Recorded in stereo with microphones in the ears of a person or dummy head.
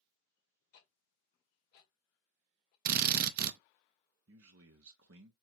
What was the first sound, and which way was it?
Ticking, 50° left (ahead or behind).